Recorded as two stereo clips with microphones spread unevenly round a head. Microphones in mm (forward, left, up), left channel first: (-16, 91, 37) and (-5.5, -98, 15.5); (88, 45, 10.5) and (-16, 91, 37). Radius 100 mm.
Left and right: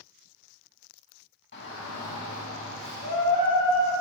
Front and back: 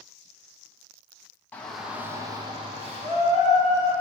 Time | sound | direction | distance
1.5 | a shout | 55° left | 1.4 m